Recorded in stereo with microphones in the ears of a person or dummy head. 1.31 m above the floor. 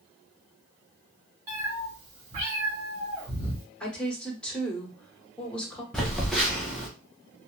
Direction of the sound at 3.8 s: 5° left (ahead or behind).